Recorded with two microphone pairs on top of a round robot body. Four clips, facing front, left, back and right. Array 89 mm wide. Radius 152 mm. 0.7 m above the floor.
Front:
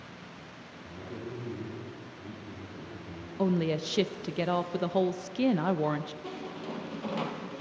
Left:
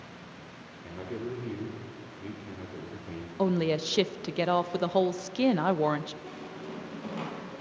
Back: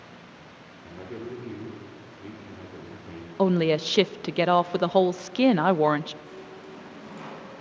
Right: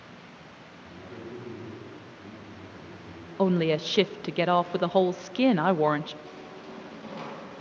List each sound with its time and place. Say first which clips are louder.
0.8 s a man speaking: left 6 dB, back 4 dB; 120° left, 3 m
3.4 s a woman speaking: right 3 dB, back 6 dB; 150° right, 0.6 m
6.2 s a squeak: left 2 dB, front 4 dB; straight ahead, 3 m